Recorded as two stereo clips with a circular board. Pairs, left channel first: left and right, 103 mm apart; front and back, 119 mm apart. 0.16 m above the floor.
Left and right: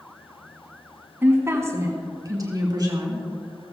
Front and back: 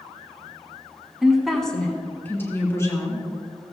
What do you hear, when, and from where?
1.2 s a woman speaking: 105° right, 1.5 m; by 3.2 s 55° right, 2.5 m